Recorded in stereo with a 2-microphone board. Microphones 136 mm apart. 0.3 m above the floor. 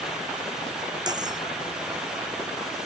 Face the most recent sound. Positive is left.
turn(degrees=-30)  # may be behind; listen again after turning